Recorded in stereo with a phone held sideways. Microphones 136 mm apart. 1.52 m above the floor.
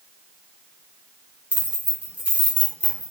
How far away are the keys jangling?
About 0.6 m.